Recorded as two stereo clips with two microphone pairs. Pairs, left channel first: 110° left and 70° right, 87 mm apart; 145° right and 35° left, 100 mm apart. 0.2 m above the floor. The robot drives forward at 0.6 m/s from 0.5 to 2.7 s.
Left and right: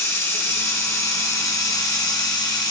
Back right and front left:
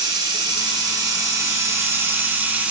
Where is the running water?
65° left, 2.5 m; by 2.7 s 105° left, 2.5 m.